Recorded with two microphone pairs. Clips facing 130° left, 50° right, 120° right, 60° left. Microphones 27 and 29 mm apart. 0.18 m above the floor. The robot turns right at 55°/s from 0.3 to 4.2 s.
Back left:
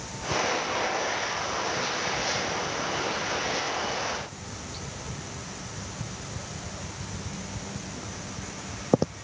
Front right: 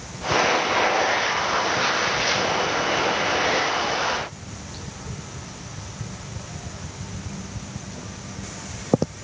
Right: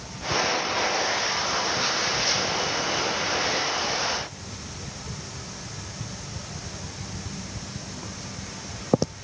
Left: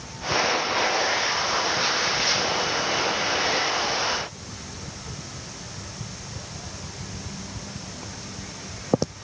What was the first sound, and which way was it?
Only background noise.